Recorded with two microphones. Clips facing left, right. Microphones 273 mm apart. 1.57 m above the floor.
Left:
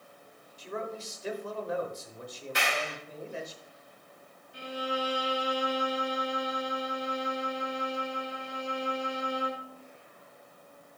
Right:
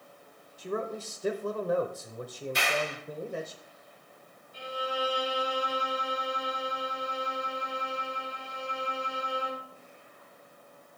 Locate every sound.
0.6 s a man speaking: 45° right (ahead or behind), 1.0 m
2.5 s a clap: 70° left (ahead or behind), 6 m
4.5 s a violin: 70° left (ahead or behind), 5 m